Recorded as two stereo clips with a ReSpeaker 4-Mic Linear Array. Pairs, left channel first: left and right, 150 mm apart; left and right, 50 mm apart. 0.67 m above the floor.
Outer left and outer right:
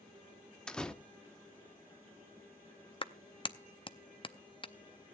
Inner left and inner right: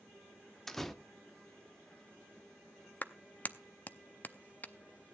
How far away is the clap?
About 0.6 m.